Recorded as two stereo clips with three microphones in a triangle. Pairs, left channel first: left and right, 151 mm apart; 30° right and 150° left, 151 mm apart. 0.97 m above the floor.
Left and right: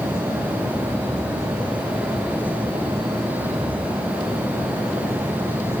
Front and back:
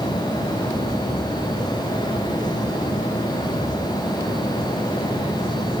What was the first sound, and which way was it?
Only background noise.